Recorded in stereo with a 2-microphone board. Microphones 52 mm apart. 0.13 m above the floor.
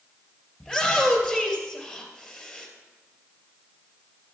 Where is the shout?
5° left (ahead or behind), 2.5 m.